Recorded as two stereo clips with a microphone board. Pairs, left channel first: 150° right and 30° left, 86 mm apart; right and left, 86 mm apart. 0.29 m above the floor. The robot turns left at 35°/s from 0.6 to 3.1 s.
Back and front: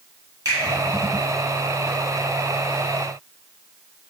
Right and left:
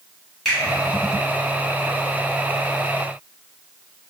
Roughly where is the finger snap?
Ahead.